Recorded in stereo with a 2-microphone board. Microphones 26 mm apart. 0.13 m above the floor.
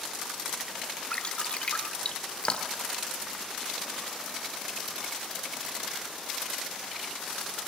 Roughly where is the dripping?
Left.